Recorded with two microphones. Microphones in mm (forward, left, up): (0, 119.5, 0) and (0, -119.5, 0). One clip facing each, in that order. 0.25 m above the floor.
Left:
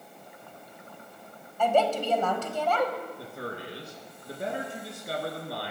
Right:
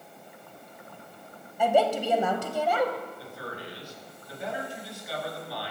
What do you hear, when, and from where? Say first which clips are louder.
1.6 s a woman speaking: right 1 dB; 10° right (ahead or behind), 1.5 m
3.2 s a man speaking: left 2 dB; 55° left (ahead or behind), 3.5 m